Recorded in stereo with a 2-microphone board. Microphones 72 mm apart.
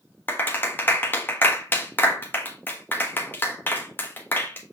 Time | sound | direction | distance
0.3 | a clap | 30° left (ahead or behind) | 1.3 m